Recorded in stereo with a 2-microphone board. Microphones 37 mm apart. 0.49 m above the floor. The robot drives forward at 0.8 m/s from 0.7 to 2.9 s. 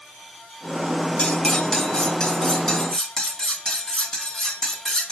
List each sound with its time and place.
1.2 s cutlery clinking: 25° left (ahead or behind), 1.1 m; by 5.1 s 10° left (ahead or behind), 2.5 m